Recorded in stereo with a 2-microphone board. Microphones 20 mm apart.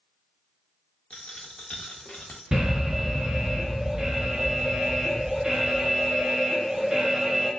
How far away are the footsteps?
I don't hear footsteps.